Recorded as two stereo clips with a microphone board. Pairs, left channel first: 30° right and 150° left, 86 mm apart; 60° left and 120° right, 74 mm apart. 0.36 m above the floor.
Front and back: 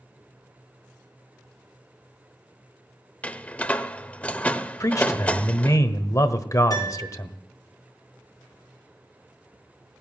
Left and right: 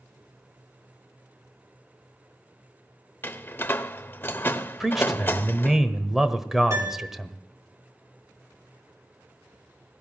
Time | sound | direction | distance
3.2 | a door slam | 30° left | 0.7 m
4.8 | a man speaking | 40° right | 1.2 m
6.7 | a piano | 75° right | 6.5 m